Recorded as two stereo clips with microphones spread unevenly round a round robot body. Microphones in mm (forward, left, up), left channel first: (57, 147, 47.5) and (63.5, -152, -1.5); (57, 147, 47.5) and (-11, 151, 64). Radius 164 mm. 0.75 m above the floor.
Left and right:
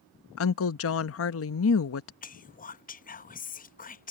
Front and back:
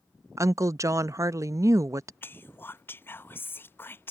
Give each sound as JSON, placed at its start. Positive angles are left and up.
{"t": 0.4, "sound": "a woman speaking", "azimuth_deg": 130}
{"t": 2.2, "sound": "whispering", "azimuth_deg": 25}